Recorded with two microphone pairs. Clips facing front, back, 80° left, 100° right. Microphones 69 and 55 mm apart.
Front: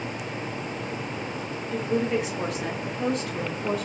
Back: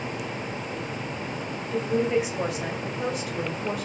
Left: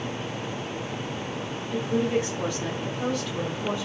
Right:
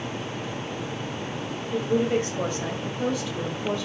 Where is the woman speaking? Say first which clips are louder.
Back 2 dB, right 2 dB; 100° right, 1.8 m; by 3.9 s 105° left, 1.3 m.